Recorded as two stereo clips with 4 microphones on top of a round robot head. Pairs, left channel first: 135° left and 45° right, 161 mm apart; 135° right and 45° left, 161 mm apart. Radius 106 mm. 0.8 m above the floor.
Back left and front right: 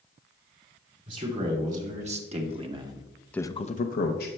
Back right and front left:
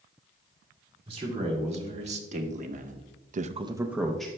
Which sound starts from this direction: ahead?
A man speaking, at 1.1 s.